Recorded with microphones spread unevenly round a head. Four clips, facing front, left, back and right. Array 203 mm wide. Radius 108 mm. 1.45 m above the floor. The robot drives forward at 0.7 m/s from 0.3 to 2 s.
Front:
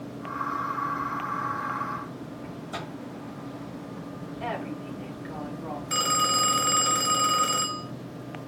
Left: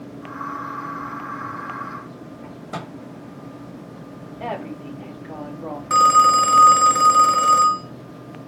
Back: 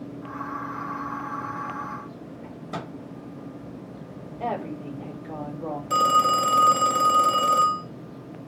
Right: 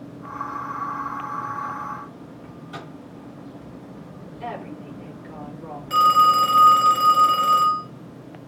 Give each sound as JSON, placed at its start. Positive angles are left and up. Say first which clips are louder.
{"t": 2.4, "sound": "a microwave", "louder": "left 6 dB, back 4 dB", "azimuth_deg": 130, "distance_m": 6.5}
{"t": 4.4, "sound": "a woman speaking", "louder": "left 4 dB, back 4 dB", "azimuth_deg": 155, "distance_m": 6.5}
{"t": 5.9, "sound": "a phone ringing", "louder": "left 2 dB, back 7 dB", "azimuth_deg": 160, "distance_m": 1.8}